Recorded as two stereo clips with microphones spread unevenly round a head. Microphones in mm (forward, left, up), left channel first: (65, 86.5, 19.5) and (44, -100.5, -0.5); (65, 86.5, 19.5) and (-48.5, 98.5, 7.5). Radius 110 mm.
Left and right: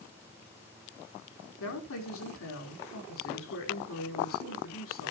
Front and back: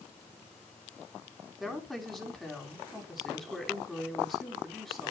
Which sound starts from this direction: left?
A woman speaking, at 1.6 s.